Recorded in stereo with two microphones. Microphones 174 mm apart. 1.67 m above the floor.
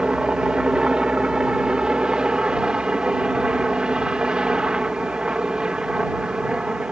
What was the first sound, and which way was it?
A helicopter, 5° right (ahead or behind).